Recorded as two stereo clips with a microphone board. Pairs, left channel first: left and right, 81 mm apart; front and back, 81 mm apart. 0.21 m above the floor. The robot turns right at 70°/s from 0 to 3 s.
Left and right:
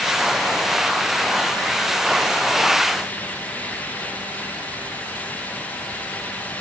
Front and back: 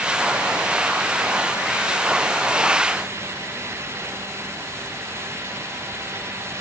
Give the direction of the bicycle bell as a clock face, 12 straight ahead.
I don't hear a bicycle bell.